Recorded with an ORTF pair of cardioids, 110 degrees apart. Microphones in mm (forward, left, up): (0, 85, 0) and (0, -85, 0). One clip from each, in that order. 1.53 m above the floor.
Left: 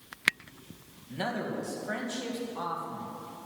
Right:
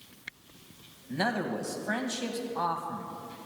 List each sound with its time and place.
1.1 s a man speaking: 25° right, 2 m